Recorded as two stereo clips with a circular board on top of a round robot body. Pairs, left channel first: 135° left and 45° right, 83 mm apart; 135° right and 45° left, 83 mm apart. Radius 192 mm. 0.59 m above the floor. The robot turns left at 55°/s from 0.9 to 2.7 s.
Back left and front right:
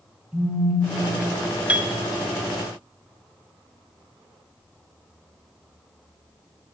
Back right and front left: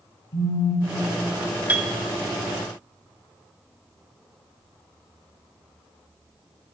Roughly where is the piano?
Ahead.